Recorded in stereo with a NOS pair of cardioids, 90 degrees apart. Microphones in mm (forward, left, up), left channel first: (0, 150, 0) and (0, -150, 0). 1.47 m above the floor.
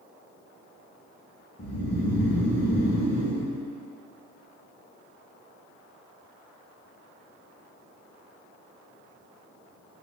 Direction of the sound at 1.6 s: 40° left.